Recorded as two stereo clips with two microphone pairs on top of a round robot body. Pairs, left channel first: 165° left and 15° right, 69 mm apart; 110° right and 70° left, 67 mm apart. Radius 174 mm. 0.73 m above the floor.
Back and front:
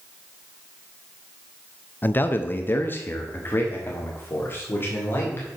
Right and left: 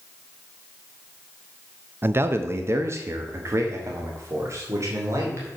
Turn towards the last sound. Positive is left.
turn(degrees=110)